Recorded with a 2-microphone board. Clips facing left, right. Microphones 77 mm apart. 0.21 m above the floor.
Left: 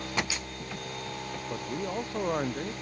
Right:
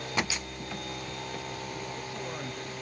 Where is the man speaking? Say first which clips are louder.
Left 5 dB; 50° left (ahead or behind).